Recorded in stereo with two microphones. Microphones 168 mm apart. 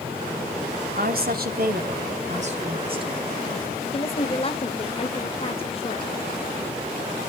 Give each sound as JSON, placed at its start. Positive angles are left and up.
{"t": 0.9, "sound": "a woman speaking", "side_deg": -65, "distance_m": 2.5}
{"t": 3.9, "sound": "a woman speaking", "side_deg": 35, "distance_m": 1.8}